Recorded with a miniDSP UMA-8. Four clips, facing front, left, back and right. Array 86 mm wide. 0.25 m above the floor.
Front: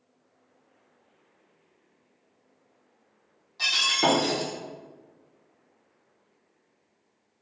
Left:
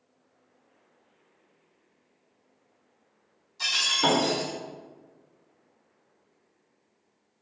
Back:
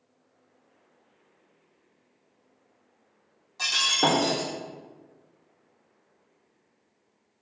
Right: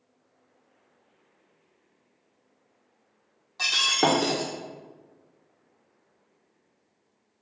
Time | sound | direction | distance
3.6 | breaking glass | 105° right | 1.8 m